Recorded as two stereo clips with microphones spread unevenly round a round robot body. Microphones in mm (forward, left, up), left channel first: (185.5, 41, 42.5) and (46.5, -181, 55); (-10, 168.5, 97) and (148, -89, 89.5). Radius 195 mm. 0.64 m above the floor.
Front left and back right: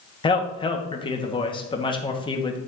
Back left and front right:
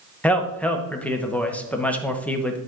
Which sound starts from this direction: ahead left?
A man speaking, at 0.2 s.